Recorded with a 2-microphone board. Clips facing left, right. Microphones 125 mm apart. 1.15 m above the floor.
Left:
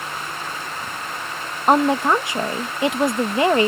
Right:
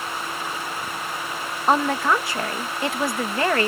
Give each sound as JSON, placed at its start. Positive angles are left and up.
{"t": 1.7, "sound": "a woman speaking", "side_deg": 20}